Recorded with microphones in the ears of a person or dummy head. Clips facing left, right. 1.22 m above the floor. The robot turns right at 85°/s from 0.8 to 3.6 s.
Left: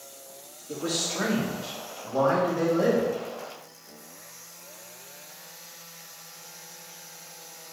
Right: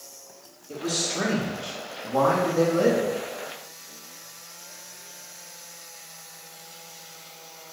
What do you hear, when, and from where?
0.7 s a man speaking: 140° left, 1.9 m; by 3.1 s 20° right, 1.9 m